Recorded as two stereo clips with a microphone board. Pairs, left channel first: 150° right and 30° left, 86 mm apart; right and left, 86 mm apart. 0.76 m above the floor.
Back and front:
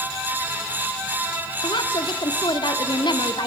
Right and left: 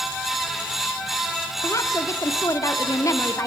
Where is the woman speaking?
135° right, 1.6 m.